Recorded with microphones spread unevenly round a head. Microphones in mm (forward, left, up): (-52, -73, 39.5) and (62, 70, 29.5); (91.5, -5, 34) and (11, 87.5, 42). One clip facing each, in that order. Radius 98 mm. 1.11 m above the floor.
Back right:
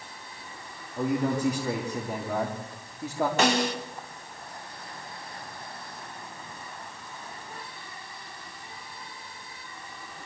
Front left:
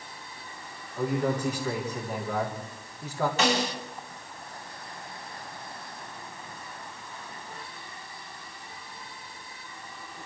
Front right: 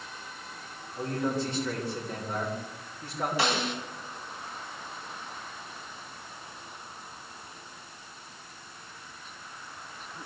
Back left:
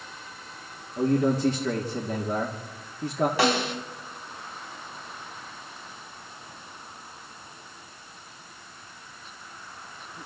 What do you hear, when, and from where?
1.0 s a man speaking: 155° left, 2.5 m
3.4 s a snare drum: 175° right, 2.5 m